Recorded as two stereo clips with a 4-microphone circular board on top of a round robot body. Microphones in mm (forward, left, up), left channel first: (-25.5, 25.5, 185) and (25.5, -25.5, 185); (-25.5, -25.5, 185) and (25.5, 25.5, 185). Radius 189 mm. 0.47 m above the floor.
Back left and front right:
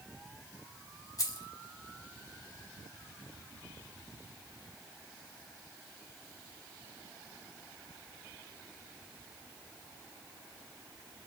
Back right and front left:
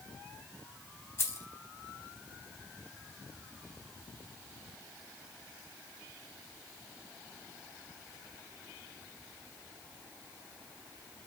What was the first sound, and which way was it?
Keys jangling, 170° left.